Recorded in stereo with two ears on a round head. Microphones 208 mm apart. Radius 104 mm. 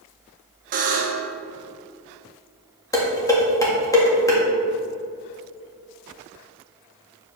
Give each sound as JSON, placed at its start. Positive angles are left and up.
{"t": 0.7, "sound": "a buzzer", "side_deg": -35, "distance_m": 1.2}
{"t": 2.9, "sound": "dishes clattering", "side_deg": 15, "distance_m": 1.8}